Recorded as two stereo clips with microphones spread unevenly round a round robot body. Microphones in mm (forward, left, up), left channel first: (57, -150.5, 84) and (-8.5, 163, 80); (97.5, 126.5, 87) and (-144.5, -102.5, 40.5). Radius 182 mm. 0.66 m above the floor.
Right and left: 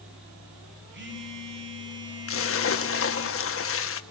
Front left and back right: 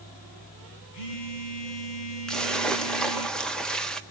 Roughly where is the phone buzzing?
Ahead left.